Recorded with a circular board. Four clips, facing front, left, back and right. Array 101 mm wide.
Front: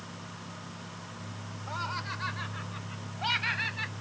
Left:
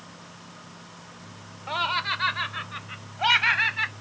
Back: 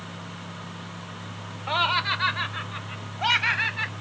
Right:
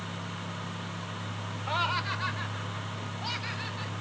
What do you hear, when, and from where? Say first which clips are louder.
1.7 s laughter: left 3 dB, back 11 dB; 175° left; by 3.9 s 115° left